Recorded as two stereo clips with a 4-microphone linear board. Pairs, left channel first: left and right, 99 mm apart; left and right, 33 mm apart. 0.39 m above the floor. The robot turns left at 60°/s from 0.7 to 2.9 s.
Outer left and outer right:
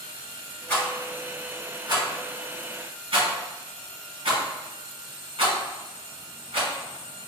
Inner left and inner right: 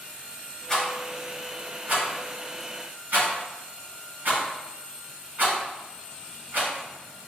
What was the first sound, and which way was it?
A rattle, 20° left (ahead or behind).